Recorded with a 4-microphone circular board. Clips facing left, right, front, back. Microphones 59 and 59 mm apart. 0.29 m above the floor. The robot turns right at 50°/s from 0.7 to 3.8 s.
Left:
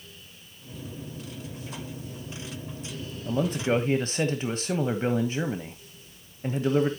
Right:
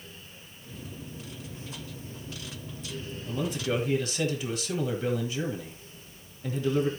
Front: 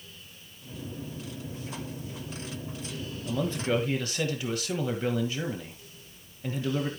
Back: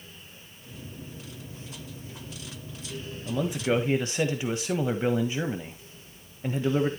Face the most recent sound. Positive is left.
turn(degrees=120)